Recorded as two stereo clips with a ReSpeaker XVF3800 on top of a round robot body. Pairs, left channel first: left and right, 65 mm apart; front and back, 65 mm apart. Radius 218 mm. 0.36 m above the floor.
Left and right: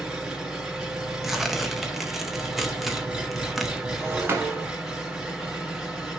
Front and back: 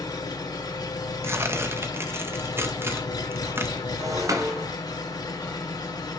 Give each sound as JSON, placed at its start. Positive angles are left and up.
{"t": 0.0, "sound": "an engine running", "azimuth_deg": -10, "distance_m": 2.5}
{"t": 1.2, "sound": "tearing paper", "azimuth_deg": -175, "distance_m": 1.6}
{"t": 4.0, "sound": "breaking glass", "azimuth_deg": -145, "distance_m": 1.4}